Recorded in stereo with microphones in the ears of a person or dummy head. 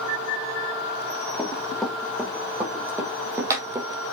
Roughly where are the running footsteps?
Centre.